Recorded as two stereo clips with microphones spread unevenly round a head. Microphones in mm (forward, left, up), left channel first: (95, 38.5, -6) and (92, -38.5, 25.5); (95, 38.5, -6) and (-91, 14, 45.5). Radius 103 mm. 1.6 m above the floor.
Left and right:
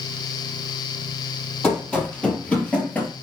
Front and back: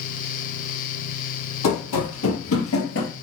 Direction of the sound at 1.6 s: Straight ahead.